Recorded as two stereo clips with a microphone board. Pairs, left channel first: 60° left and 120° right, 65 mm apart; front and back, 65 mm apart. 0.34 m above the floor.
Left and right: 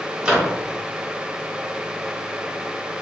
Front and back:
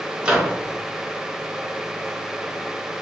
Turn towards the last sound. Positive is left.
turn(degrees=-150)